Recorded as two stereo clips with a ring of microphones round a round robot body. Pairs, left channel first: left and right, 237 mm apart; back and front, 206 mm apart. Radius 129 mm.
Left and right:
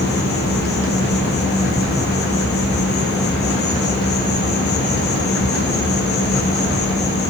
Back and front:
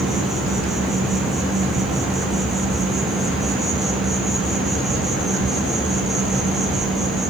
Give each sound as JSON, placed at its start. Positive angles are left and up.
{"t": 0.0, "sound": "an insect", "azimuth_deg": 90, "distance_m": 1.4}